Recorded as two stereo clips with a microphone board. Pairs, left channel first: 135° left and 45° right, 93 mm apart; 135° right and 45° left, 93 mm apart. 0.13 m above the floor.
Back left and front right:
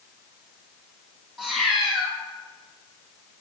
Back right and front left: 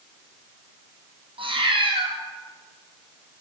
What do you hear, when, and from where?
1.4 s a cat meowing: 45° left, 2.5 m